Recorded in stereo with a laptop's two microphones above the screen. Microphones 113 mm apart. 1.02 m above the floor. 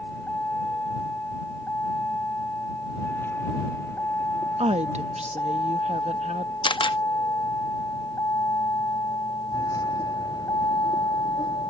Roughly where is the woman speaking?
Right.